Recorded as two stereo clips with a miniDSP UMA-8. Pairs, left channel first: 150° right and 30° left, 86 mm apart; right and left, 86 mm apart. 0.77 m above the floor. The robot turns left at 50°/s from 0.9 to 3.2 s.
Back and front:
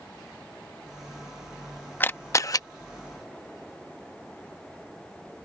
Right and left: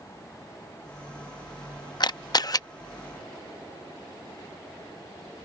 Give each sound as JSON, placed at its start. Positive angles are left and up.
{"t": 2.0, "sound": "a camera shutter", "azimuth_deg": -90}